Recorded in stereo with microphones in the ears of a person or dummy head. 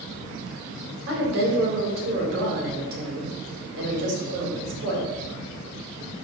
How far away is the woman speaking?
About 4 m.